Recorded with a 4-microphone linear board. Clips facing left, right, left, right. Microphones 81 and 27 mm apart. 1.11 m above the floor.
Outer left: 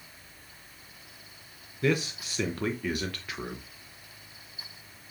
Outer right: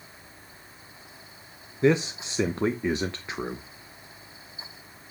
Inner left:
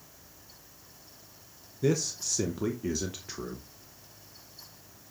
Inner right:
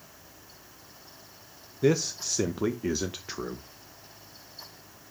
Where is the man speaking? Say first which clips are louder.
Outer right 6 dB, inner right 3 dB; 25° right (ahead or behind), 0.7 m.